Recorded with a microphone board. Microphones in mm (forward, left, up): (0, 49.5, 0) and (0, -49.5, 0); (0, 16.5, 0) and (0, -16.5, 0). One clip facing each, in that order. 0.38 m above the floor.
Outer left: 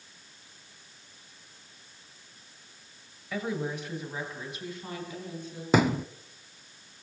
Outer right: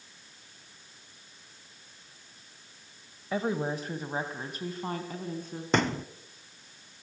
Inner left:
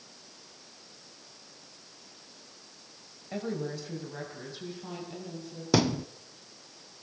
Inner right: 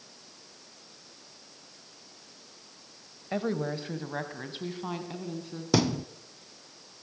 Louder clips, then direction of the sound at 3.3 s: Outer right 3 dB, inner right 4 dB; 35° right (ahead or behind).